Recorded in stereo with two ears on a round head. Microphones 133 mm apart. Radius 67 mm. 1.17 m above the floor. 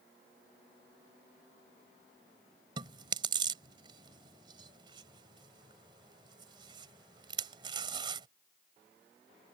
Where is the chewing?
30° right (ahead or behind).